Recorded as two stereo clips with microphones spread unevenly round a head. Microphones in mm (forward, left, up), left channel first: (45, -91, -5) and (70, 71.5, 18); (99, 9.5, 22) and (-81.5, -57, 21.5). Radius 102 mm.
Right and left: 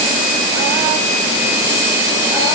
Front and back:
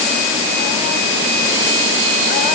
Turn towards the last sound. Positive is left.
No sound to turn to.